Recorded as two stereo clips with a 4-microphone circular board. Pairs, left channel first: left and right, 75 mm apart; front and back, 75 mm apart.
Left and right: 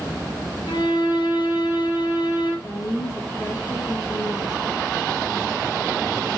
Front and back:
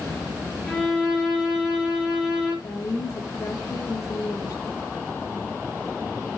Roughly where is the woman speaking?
Ahead left.